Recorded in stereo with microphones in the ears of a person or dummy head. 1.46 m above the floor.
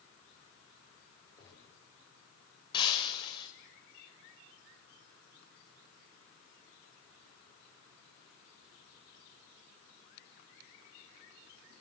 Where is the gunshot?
20° left (ahead or behind), 8.5 m.